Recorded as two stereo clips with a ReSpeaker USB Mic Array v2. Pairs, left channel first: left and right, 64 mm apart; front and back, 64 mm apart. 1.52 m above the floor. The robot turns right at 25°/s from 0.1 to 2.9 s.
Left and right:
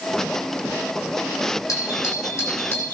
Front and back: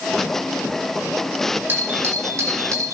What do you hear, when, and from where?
1.7 s a doorbell: 125° left, 8.5 m; by 2.9 s 155° left, 8.5 m